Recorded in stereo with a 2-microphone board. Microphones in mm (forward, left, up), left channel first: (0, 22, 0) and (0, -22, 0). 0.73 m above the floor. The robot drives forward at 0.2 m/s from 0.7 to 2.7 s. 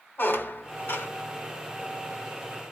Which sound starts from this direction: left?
A squeak, at 0.2 s.